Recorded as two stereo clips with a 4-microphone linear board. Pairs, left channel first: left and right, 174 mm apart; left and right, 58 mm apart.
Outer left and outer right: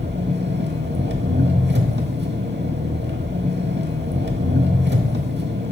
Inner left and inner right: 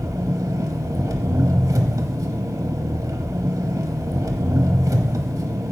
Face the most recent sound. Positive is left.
turn(degrees=-85)